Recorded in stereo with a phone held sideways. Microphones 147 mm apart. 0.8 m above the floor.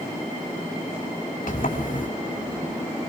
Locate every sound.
1.5 s a sliding door: 65° left (ahead or behind), 2.5 m